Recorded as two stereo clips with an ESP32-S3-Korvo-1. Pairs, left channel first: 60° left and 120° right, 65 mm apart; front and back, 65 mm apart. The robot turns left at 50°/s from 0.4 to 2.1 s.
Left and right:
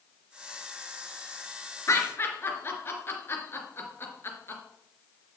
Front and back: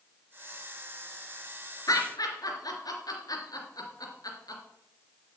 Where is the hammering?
I don't hear hammering.